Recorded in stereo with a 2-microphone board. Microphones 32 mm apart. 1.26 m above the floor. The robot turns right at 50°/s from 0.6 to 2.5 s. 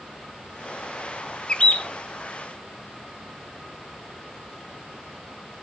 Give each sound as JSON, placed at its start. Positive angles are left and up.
{"t": 1.5, "sound": "a bird", "side_deg": 25, "distance_m": 0.5}